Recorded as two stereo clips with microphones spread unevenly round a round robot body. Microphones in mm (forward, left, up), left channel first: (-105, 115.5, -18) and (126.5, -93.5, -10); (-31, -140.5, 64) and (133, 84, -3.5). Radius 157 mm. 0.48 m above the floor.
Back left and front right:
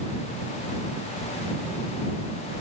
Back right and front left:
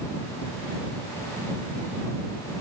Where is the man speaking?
No man speaking in this recording.